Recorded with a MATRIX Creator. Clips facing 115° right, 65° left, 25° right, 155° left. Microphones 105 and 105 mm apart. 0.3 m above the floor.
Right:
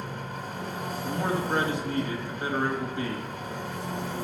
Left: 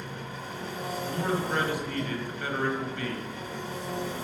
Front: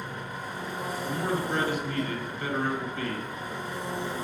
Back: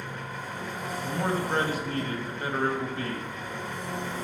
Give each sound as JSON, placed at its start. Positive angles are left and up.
{"t": 0.0, "sound": "an engine running", "azimuth_deg": -95, "distance_m": 1.3}
{"t": 1.0, "sound": "a man speaking", "azimuth_deg": -165, "distance_m": 1.3}